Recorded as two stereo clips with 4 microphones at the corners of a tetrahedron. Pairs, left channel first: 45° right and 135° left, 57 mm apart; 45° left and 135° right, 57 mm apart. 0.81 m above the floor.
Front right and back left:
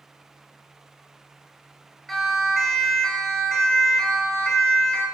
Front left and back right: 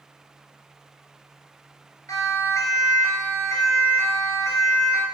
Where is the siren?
40° left, 6.5 m; by 5.0 s 25° left, 7 m.